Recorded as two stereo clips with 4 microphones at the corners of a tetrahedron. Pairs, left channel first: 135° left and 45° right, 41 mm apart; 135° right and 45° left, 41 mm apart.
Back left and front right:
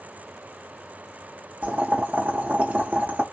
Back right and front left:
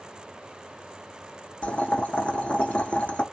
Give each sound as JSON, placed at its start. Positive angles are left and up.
{"t": 1.6, "sound": "boiling", "azimuth_deg": -85, "distance_m": 0.5}